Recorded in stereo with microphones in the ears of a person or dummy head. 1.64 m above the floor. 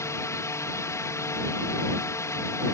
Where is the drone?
15° left (ahead or behind).